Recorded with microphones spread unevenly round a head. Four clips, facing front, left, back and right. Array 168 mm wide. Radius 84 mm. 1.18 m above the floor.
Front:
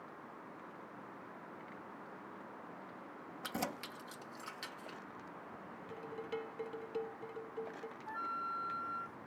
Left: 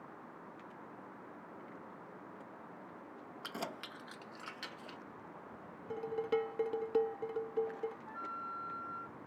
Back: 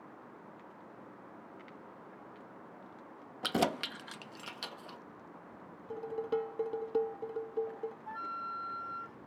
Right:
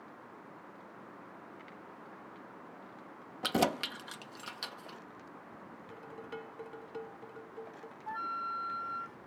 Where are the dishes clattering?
140° left.